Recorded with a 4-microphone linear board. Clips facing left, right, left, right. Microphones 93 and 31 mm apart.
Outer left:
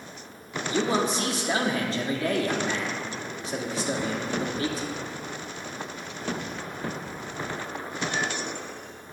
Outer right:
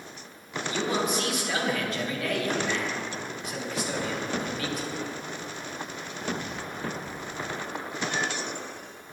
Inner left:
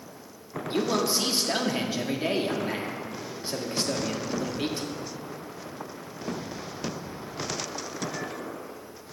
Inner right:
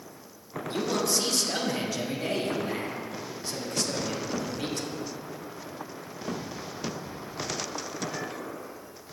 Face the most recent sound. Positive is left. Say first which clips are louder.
# outer left 3 dB, inner left 2 dB
turn(degrees=30)  # may be behind; listen again after turning